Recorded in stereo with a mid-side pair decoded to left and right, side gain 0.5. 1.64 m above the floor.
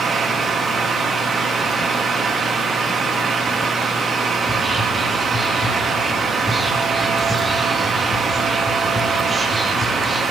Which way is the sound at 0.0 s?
35° right.